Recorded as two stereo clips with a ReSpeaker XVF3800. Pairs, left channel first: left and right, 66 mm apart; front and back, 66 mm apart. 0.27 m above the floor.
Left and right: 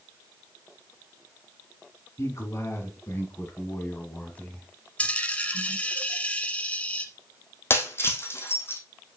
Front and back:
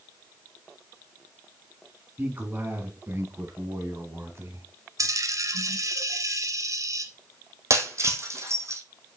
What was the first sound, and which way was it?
A man speaking, 120° left.